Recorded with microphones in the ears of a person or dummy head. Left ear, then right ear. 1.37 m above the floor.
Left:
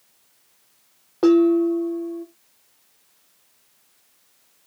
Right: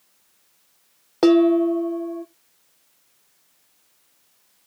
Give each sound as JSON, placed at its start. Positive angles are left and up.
{"t": 1.2, "sound": "dishes clattering", "side_deg": -40, "distance_m": 0.6}